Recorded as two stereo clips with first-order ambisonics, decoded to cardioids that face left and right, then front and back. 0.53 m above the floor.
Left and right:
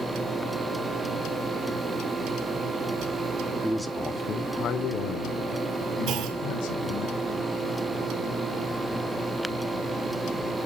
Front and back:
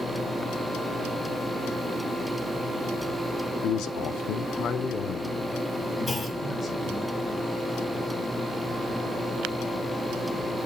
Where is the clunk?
80° right, 1.8 m.